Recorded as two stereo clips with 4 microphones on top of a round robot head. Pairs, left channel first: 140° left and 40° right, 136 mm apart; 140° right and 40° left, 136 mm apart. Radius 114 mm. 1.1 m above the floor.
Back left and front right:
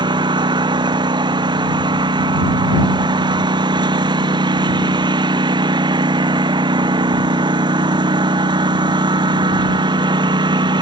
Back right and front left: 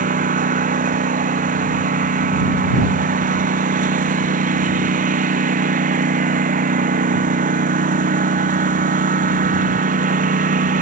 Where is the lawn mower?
15° left.